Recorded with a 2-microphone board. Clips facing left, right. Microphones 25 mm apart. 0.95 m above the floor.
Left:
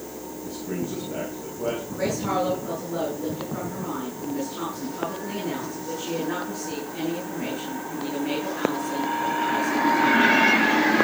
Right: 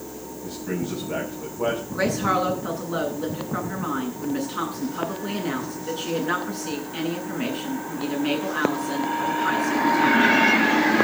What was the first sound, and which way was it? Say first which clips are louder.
A man speaking: right 2 dB; 70° right (ahead or behind).